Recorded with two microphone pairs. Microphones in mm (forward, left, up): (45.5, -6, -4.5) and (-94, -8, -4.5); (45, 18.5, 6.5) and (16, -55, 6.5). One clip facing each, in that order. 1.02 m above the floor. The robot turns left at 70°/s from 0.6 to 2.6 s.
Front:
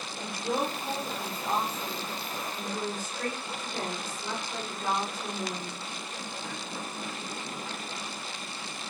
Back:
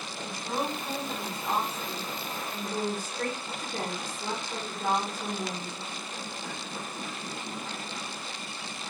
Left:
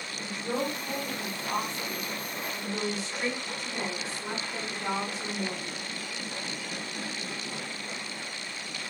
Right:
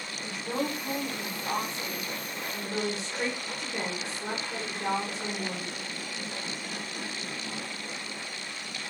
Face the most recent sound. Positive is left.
turn(degrees=-150)